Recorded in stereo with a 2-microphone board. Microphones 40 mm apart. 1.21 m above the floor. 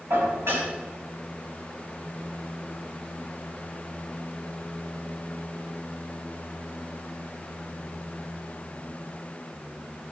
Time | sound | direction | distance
0.1 | dishes clattering | 85° right | 5 m